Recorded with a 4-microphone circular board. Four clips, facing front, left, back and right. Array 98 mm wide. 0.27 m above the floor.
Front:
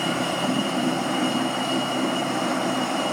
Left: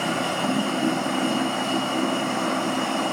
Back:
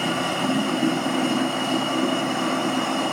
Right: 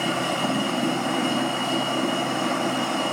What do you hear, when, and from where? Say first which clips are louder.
0.0 s running water: even, back 1 dB; 165° left, 1.5 m